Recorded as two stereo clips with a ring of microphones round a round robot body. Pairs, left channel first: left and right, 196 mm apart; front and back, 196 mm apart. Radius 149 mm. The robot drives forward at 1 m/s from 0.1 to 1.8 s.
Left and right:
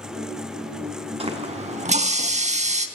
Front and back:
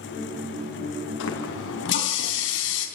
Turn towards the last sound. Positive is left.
turn(degrees=-35)